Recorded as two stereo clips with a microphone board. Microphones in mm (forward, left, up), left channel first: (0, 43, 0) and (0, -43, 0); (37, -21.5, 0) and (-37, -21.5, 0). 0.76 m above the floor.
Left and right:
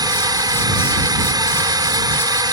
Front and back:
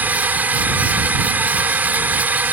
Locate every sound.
0.0 s a drone: 120° right